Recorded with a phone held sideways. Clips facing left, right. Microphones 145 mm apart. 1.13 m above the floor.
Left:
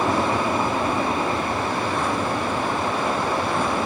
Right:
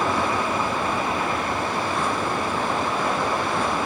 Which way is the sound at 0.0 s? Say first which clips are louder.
Left 2 dB; 30° left (ahead or behind).